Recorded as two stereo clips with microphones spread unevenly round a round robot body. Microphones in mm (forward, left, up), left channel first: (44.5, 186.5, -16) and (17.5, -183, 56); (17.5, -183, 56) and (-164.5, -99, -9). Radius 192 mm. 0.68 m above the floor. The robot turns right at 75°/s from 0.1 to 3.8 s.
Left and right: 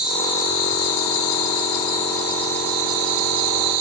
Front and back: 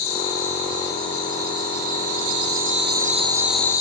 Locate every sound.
0.0 s an insect: 10° right, 2 m; by 3.8 s 90° right, 2 m